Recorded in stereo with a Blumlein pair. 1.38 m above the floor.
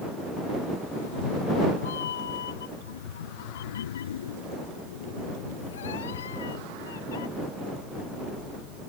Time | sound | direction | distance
0.9 | a cat meowing | 65° left | ?